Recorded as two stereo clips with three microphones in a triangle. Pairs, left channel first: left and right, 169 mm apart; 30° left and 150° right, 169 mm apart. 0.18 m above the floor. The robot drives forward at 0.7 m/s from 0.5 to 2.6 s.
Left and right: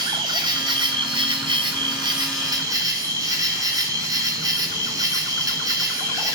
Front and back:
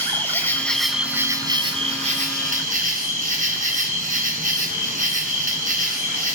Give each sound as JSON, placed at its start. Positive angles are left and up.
{"t": 0.0, "sound": "an insect", "azimuth_deg": -45, "distance_m": 1.1}